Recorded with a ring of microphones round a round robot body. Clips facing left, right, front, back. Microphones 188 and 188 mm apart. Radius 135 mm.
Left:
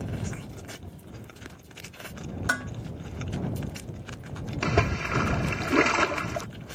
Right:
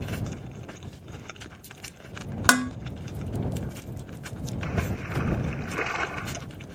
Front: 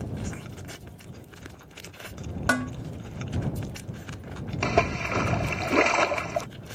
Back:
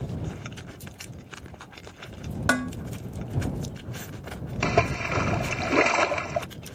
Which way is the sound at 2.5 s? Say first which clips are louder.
Right 14 dB, back 1 dB; 90° right.